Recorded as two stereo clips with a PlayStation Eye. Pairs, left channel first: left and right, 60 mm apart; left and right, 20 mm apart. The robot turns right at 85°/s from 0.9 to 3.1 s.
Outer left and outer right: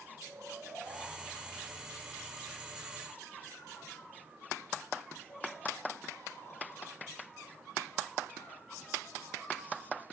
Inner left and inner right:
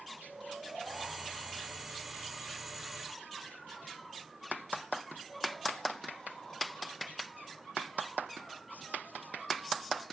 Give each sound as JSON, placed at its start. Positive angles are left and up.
{"t": 0.2, "sound": "snoring", "side_deg": -55, "distance_m": 8.0}